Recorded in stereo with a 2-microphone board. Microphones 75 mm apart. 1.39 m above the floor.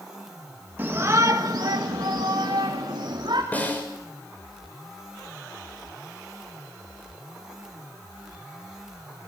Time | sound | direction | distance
0.8 | a shout | 25° right (ahead or behind) | 2 m
3.5 | a snare drum | 20° left (ahead or behind) | 6 m